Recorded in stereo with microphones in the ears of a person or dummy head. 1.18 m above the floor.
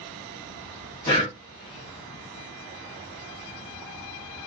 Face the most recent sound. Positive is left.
turn(degrees=15)  # may be behind; listen again after turning